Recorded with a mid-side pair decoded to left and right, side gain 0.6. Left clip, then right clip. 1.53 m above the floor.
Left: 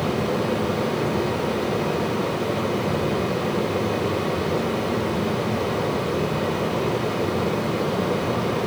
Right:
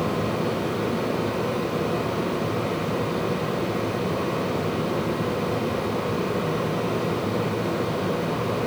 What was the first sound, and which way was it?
A fan, 65° left.